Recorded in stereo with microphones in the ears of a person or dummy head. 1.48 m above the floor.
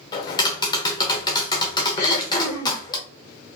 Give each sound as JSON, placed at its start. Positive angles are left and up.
{"t": 0.1, "sound": "tapping", "side_deg": 20, "distance_m": 1.0}
{"t": 2.0, "sound": "throat clearing", "side_deg": 55, "distance_m": 2.5}